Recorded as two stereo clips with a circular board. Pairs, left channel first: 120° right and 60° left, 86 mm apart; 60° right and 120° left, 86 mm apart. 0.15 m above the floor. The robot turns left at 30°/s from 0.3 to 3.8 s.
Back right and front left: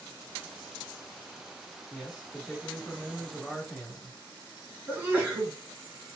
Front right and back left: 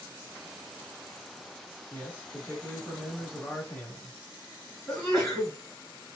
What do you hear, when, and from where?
1.9 s a man speaking: 30° right, 1.3 m; by 4.2 s 85° right, 1.3 m
4.9 s a sneeze: 25° left, 1.7 m